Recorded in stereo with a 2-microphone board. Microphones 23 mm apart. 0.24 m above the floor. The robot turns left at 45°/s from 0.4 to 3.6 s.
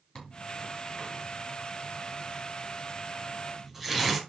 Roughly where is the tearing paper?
Left.